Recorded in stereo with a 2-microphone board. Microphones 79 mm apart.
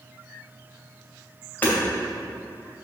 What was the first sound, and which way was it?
Hammering, 25° left (ahead or behind).